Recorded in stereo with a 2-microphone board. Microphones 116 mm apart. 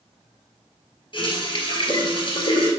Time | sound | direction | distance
1.1 | a running tap | 45° left (ahead or behind) | 1.5 m